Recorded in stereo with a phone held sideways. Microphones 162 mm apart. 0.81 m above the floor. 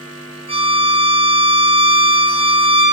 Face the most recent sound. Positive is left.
turn(degrees=-35)  # may be behind; listen again after turning